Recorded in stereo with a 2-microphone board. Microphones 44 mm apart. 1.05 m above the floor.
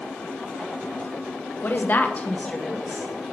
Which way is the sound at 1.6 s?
45° left (ahead or behind).